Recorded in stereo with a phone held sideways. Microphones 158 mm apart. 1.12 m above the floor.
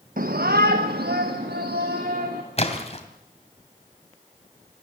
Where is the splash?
40° left (ahead or behind), 2.5 m.